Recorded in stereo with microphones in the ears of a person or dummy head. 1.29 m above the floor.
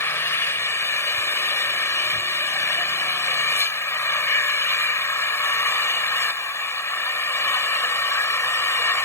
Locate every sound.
0.0 s an engine running: 15° left (ahead or behind)